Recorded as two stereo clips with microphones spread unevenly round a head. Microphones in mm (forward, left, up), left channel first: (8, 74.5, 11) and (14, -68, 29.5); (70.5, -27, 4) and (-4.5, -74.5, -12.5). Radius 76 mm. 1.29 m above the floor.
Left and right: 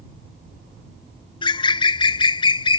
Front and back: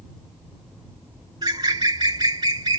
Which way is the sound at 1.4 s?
150° left.